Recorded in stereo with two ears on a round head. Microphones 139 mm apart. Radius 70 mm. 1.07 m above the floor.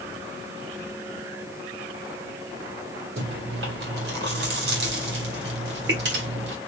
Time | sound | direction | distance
3.2 | chewing | 75° right (ahead or behind) | 1.7 m